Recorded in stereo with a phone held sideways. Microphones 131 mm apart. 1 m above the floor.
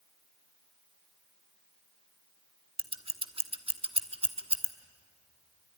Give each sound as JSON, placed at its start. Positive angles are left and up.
{"t": 2.8, "sound": "scissors", "side_deg": -45, "distance_m": 1.2}